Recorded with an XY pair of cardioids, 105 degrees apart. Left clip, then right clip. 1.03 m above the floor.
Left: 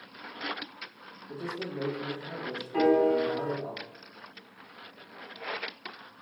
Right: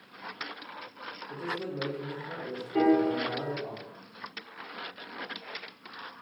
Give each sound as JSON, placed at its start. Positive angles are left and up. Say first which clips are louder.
{"t": 1.3, "sound": "a man speaking", "louder": "right 1 dB", "azimuth_deg": 55, "distance_m": 1.3}
{"t": 2.7, "sound": "a piano", "louder": "left 2 dB", "azimuth_deg": 65, "distance_m": 1.7}